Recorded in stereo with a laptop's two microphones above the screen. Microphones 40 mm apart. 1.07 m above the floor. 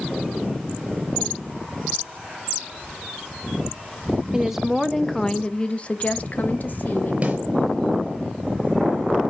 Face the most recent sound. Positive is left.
turn(degrees=-35)  # may be behind; listen again after turning